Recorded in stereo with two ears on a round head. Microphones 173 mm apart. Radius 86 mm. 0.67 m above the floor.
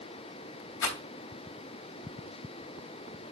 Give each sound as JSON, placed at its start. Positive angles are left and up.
{"t": 0.8, "sound": "a rattle", "side_deg": 70, "distance_m": 3.0}